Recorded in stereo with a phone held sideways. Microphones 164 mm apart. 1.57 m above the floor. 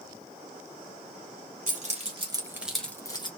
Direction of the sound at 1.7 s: 50° right (ahead or behind).